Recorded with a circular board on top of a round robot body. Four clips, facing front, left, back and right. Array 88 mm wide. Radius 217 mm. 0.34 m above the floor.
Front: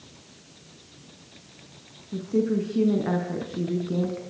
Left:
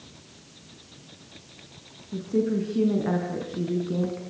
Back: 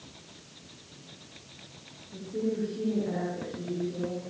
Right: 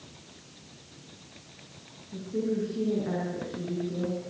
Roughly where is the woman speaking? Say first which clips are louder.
Left 5 dB, front 7 dB; ahead left.